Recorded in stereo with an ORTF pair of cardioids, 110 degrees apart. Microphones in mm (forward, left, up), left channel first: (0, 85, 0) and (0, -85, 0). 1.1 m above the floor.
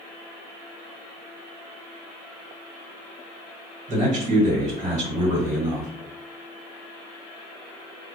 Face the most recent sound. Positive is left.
turn(degrees=-50)